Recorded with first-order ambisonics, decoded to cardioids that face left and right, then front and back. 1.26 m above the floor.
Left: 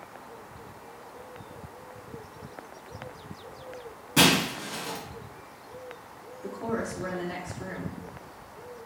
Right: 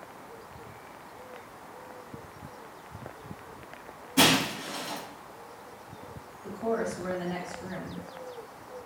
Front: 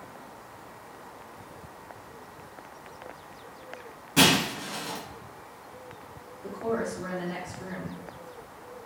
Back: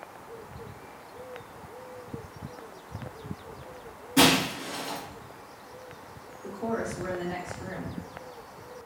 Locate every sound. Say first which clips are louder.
4.2 s breaking glass: left 1 dB, even; 70° left, 2.5 m
6.4 s a woman speaking: right 2 dB, front 2 dB; 75° left, 2.5 m